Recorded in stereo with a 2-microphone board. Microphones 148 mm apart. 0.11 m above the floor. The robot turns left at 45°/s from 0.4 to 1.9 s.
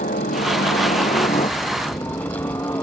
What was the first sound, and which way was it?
A helicopter, 85° left.